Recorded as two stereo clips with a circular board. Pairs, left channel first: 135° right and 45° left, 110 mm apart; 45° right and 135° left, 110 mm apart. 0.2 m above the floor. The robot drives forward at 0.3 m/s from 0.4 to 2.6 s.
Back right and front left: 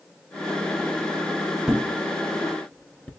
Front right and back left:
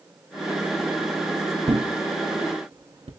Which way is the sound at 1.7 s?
125° left.